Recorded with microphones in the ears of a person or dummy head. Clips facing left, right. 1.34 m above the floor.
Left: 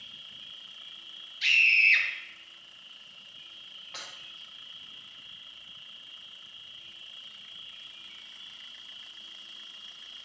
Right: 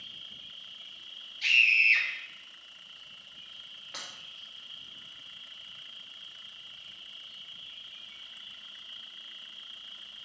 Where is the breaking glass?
15° right (ahead or behind), 1.3 m.